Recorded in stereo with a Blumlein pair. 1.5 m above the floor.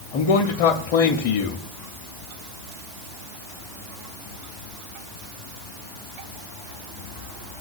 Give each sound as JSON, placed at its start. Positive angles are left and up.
{"t": 0.1, "sound": "a man speaking", "azimuth_deg": 40, "distance_m": 0.7}